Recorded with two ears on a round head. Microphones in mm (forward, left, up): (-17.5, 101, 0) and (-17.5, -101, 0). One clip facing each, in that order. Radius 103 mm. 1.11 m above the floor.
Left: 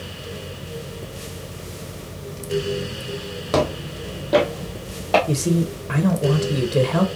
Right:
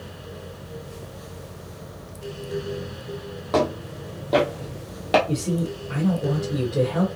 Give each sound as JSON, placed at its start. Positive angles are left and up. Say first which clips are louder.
{"t": 3.5, "sound": "footsteps", "louder": "left 1 dB", "side_deg": 35, "distance_m": 1.5}
{"t": 5.3, "sound": "a man speaking", "louder": "left 4 dB", "side_deg": 90, "distance_m": 0.8}